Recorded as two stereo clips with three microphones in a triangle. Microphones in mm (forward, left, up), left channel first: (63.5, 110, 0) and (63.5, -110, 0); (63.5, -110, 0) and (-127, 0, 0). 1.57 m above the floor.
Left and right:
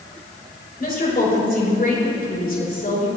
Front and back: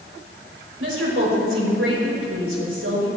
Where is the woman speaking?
135° left, 6 m.